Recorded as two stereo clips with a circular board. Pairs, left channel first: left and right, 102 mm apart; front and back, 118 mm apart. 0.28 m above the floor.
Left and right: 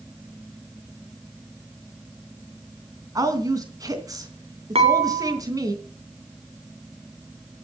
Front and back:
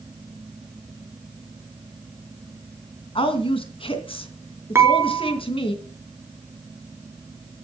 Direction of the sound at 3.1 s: 35° right.